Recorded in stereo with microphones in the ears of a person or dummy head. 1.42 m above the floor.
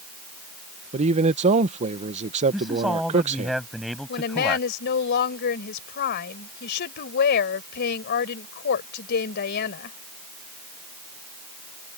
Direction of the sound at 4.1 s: 60° left (ahead or behind).